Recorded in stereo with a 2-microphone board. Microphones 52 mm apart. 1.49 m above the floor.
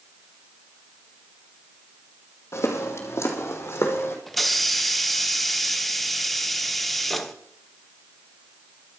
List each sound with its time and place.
2.5 s footsteps: 60° left (ahead or behind), 3.5 m; by 4.2 s 55° left (ahead or behind), 4 m
4.3 s a hiss: 5° left (ahead or behind), 1.1 m